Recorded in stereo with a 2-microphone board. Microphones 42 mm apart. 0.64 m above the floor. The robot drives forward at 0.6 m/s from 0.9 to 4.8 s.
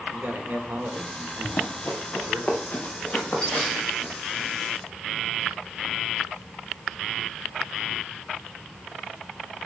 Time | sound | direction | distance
0.1 | a man speaking | 50° right (ahead or behind) | 1.7 m
1.4 | running footsteps | 55° left (ahead or behind) | 1.9 m